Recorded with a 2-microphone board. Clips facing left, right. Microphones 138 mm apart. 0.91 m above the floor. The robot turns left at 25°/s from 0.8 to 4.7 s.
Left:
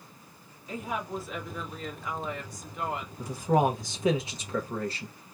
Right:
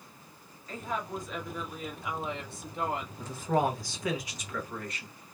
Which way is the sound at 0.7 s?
15° left.